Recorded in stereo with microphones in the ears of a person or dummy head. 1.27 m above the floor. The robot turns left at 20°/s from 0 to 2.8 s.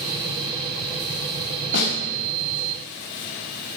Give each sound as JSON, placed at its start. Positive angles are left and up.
{"t": 1.7, "sound": "a snare drum", "side_deg": 65, "distance_m": 4.0}